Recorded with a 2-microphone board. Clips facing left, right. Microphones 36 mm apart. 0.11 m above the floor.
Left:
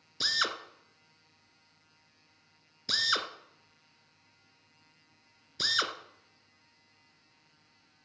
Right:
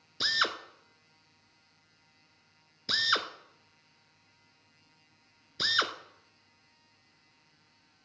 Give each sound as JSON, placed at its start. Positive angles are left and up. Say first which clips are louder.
{"t": 0.2, "sound": "a drill", "louder": "right 2 dB", "side_deg": -10, "distance_m": 0.7}